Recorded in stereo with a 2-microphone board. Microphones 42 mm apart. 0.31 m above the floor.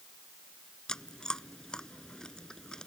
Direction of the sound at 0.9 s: 20° left (ahead or behind).